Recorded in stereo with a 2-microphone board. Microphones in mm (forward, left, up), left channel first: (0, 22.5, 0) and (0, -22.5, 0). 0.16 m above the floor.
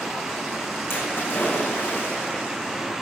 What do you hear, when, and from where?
0.9 s a splash: 55° left (ahead or behind), 5 m